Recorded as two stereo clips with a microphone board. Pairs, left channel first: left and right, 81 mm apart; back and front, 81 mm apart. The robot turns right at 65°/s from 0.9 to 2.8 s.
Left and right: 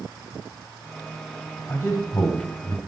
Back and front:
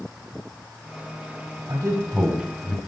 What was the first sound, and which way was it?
A man speaking, 35° left.